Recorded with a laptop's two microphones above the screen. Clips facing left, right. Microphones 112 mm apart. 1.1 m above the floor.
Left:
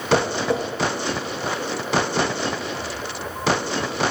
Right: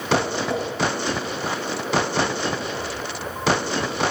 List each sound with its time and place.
0.1 s tapping: 70° left (ahead or behind), 2.5 m